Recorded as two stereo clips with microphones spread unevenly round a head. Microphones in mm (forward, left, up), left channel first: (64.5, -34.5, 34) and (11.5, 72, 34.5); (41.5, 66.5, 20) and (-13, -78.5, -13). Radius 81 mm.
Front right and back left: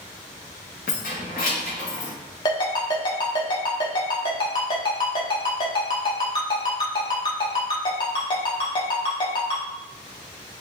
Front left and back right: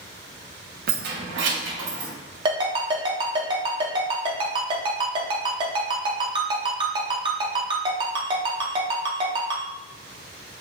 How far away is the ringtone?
About 0.8 m.